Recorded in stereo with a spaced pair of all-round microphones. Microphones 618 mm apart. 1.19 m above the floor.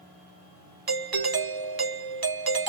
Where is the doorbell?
40° right (ahead or behind), 0.6 m.